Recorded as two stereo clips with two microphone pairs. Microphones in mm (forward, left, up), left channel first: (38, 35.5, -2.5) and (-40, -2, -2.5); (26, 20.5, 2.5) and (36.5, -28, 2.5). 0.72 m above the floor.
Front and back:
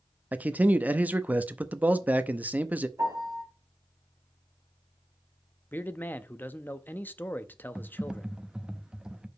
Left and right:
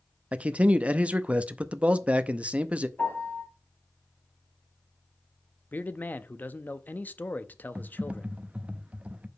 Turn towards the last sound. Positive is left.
turn(degrees=-80)